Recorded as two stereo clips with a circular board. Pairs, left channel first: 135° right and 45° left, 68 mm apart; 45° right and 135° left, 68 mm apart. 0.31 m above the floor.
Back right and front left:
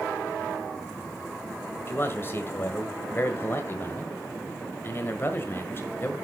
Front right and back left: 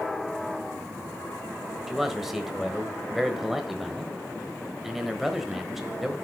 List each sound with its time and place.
1.9 s a man speaking: 145° right, 1.2 m